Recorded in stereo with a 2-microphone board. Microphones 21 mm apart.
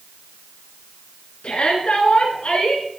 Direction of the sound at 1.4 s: 65° left (ahead or behind).